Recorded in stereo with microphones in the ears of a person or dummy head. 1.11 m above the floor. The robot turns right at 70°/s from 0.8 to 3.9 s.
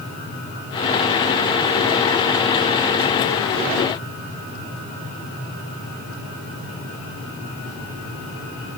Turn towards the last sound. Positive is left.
No sound to turn to.